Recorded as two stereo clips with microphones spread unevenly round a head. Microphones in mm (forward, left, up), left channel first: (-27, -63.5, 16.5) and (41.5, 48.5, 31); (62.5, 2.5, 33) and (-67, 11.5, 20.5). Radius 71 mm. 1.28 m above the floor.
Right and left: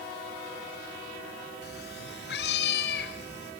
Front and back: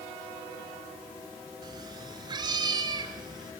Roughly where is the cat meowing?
Behind right.